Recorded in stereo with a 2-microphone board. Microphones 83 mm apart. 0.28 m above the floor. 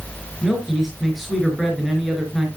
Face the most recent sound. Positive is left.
turn(degrees=-5)  # may be behind; listen again after turning